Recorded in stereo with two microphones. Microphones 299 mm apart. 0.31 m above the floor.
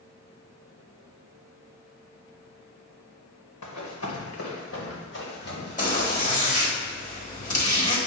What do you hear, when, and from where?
3.6 s running footsteps: 70° left (ahead or behind), 1.4 m; by 6.8 s 25° left (ahead or behind), 3 m
5.8 s a zipper: 25° left (ahead or behind), 1.3 m